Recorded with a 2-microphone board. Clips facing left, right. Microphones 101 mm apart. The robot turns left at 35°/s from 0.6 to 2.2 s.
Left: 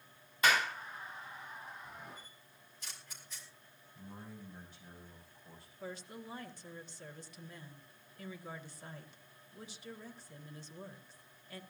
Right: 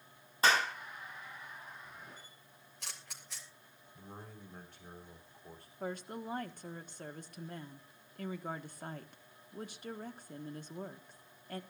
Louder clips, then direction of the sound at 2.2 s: Even; 75° right (ahead or behind).